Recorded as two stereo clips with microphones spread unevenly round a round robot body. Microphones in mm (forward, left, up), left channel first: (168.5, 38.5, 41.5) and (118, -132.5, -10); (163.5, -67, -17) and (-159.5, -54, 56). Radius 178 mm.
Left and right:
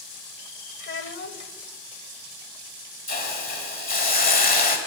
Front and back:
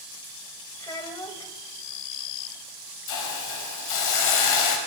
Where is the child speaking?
80° left, 2.5 m.